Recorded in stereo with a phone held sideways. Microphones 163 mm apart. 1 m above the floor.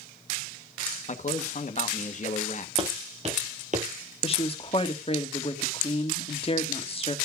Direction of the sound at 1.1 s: 50° left (ahead or behind).